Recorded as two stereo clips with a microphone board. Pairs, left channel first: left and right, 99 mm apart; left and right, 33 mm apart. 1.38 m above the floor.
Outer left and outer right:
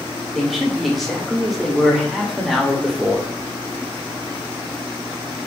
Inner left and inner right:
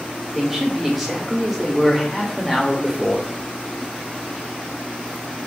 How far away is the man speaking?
About 0.7 m.